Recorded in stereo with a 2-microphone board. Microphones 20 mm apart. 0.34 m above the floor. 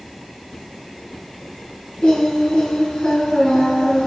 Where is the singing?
75° left (ahead or behind), 4.5 m.